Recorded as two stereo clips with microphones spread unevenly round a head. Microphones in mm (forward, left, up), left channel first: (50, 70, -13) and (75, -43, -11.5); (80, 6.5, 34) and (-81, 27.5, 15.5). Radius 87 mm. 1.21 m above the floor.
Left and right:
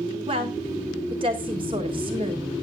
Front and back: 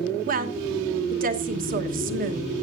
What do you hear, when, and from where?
0.3 s a woman speaking: 145° right, 1.2 m